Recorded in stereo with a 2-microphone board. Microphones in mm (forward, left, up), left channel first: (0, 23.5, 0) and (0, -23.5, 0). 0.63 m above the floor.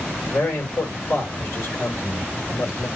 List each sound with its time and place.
0.3 s a man speaking: 60° left (ahead or behind), 2.5 m